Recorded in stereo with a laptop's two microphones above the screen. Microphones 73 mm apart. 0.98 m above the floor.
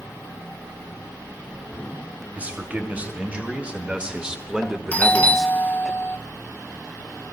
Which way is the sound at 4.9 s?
20° left (ahead or behind).